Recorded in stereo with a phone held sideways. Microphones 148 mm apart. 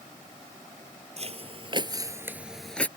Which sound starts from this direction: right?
Footsteps, at 1.2 s.